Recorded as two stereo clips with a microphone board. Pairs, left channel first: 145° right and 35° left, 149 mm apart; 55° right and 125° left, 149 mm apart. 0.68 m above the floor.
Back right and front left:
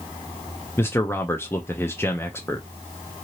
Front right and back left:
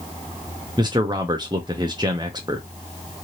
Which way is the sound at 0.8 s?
155° left.